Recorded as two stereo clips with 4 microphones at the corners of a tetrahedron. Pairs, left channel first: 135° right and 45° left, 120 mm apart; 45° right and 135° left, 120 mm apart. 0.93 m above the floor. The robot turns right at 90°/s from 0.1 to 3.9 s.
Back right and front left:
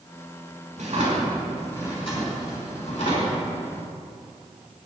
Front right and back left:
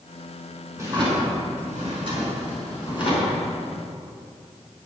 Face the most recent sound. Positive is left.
turn(degrees=-15)